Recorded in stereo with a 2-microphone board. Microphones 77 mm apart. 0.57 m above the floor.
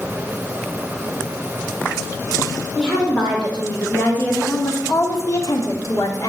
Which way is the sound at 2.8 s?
10° left (ahead or behind).